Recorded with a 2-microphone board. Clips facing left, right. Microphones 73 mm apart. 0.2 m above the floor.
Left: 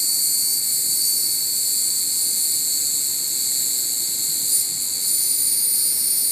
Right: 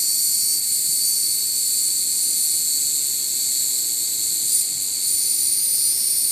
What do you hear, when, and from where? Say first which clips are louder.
0.0 s an insect: left 1 dB; 40° left (ahead or behind), 1.8 m